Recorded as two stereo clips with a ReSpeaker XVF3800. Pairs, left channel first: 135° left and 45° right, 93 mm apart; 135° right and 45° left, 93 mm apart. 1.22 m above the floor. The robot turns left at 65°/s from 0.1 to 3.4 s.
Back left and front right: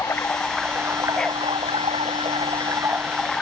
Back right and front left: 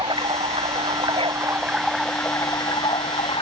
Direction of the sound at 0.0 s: 75° left.